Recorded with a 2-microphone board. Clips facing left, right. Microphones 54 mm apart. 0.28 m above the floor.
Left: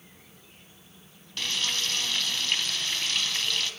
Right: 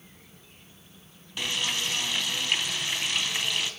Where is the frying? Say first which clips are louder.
Right 1 dB; 15° right (ahead or behind), 2.5 m.